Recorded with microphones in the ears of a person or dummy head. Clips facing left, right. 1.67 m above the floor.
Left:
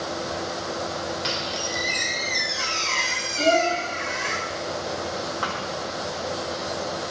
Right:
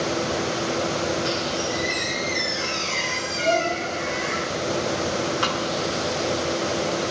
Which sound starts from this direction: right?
A thud, at 5.4 s.